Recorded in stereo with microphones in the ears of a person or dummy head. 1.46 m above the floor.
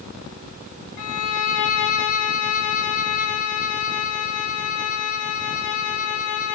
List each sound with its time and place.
1.0 s a violin: 65° left (ahead or behind), 1.2 m